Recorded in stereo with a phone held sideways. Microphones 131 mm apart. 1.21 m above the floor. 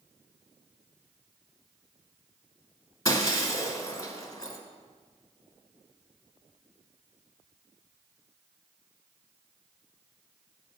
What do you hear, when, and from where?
3.0 s breaking glass: 25° left (ahead or behind), 1.3 m